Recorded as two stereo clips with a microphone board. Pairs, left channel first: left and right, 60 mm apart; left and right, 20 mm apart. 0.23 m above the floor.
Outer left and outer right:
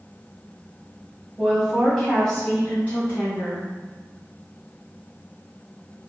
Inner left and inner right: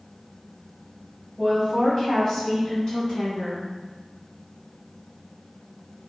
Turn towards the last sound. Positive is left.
turn(degrees=45)  # may be behind; listen again after turning